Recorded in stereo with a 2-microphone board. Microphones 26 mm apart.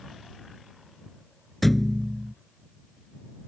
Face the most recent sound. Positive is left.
turn(degrees=0)  # may be behind; listen again after turning